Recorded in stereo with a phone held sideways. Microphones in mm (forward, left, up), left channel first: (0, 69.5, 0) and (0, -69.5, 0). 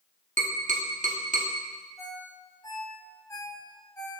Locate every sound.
0.4 s tapping: 65° right (ahead or behind), 1.4 m
2.0 s a ringtone: 25° left (ahead or behind), 2.5 m